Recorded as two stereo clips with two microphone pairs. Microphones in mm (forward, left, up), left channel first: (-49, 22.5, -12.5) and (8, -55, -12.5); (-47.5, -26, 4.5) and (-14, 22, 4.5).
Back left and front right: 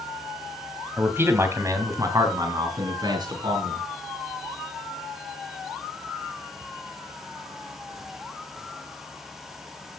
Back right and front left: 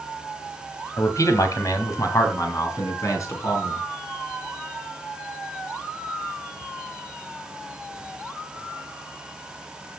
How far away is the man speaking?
About 2.5 m.